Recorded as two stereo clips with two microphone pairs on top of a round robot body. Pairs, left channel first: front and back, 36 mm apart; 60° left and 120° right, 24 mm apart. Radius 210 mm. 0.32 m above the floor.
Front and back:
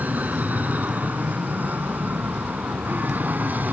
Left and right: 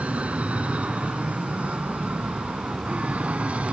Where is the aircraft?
140° right; by 3.7 s 145° right.